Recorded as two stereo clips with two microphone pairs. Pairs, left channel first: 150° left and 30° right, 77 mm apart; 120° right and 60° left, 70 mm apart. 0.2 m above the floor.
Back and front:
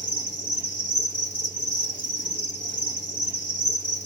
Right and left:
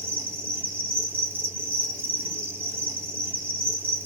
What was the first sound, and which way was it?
An insect, 95° left.